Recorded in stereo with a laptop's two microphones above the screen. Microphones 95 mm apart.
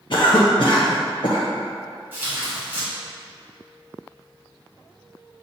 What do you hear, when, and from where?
0.1 s a cough: 55° left (ahead or behind), 0.5 m
2.1 s tearing paper: 20° right (ahead or behind), 1.2 m